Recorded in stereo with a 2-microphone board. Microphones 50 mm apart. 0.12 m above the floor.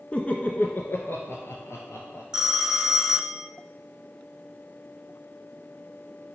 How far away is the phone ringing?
About 0.8 m.